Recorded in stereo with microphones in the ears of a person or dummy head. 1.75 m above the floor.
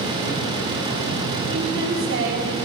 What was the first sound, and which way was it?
A woman speaking, 70° right (ahead or behind).